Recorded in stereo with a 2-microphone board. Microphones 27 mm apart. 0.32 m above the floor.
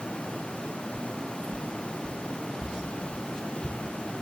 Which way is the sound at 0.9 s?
10° left (ahead or behind).